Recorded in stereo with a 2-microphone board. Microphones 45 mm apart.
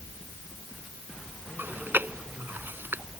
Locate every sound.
1.6 s chewing: 55° right (ahead or behind)